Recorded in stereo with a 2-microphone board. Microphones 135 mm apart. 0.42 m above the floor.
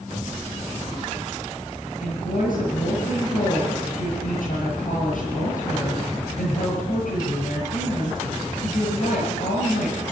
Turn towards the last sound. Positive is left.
turn(degrees=80)